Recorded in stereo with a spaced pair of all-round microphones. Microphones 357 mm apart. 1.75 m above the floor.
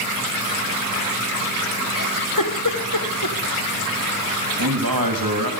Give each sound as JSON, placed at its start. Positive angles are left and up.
{"t": 1.9, "sound": "a giggle", "side_deg": 60, "distance_m": 1.6}
{"t": 4.6, "sound": "a man speaking", "side_deg": -70, "distance_m": 3.0}